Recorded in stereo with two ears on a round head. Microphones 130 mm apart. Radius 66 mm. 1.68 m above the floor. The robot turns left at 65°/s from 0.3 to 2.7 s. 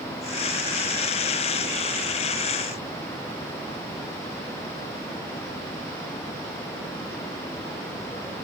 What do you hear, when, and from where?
Only background noise.